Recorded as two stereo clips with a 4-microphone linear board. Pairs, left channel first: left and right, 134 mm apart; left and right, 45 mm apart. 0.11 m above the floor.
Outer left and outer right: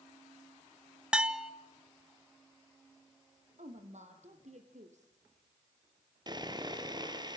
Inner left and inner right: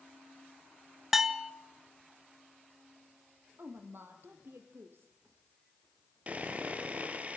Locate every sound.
1.1 s a bell: 5° right (ahead or behind), 0.8 m
3.6 s a woman speaking: 60° right (ahead or behind), 4 m
6.3 s sawing: 30° right (ahead or behind), 2.0 m